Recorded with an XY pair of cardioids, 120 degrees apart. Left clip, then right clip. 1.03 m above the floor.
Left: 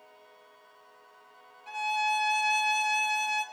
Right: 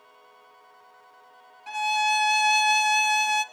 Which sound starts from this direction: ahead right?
A violin, at 1.7 s.